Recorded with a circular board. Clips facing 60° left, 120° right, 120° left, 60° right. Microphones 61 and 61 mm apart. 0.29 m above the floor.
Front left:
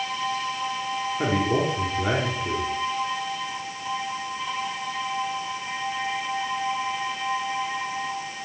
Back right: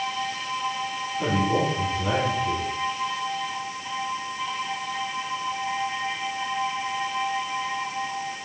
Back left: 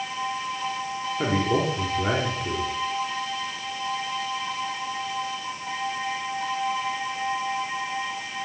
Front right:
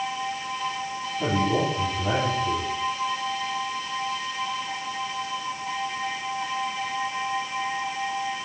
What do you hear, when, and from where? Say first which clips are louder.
1.2 s a man speaking: back right 1 dB, even; 100° left, 4 m